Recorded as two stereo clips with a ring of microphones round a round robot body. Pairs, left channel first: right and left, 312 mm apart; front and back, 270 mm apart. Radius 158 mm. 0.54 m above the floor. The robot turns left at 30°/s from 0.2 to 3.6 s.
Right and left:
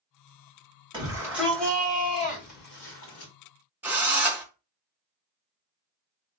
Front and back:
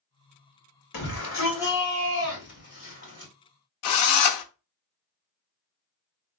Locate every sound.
0.9 s a shout: 15° left, 1.8 m; by 3.3 s 55° right, 1.8 m
3.8 s a drill: 5° left, 0.6 m